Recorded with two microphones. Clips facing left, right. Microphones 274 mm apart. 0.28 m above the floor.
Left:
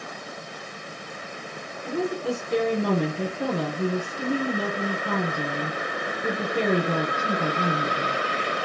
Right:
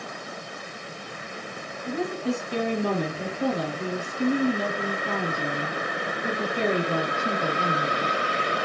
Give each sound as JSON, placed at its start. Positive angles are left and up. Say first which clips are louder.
{"t": 1.9, "sound": "a woman speaking", "louder": "left 1 dB", "side_deg": 65, "distance_m": 4.0}